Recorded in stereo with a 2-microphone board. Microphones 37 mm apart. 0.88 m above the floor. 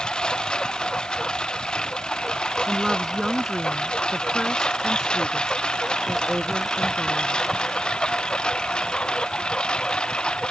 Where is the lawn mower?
25° left (ahead or behind).